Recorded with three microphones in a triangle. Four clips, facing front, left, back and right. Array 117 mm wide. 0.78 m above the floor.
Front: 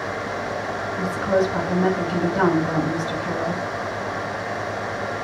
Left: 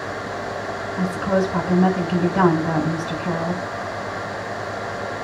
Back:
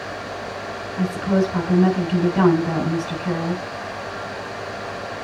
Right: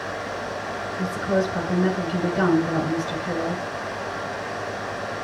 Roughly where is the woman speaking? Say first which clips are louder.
Left 3 dB, back 1 dB; left.